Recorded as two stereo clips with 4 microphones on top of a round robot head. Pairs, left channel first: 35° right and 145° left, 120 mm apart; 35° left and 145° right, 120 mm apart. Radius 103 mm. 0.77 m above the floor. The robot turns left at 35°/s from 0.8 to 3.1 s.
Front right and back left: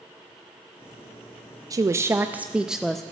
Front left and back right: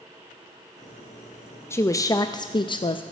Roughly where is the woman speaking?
Left.